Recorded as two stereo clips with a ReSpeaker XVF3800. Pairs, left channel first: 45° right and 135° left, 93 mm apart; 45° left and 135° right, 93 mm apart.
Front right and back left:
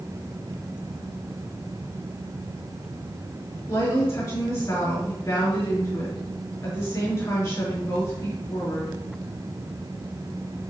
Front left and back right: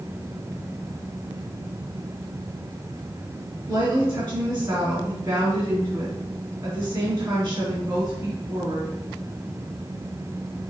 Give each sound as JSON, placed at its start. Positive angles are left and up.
{"t": 3.7, "sound": "a woman speaking", "azimuth_deg": -80, "distance_m": 3.0}